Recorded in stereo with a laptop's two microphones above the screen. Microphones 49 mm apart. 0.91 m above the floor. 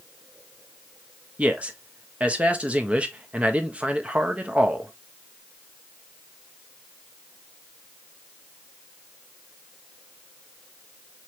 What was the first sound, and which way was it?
A man speaking, 25° right (ahead or behind).